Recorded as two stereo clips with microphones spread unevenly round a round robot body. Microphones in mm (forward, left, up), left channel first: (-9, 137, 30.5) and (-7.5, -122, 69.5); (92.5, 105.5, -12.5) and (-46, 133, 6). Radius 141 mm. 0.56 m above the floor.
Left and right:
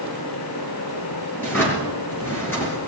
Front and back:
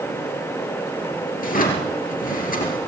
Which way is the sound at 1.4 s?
5° left.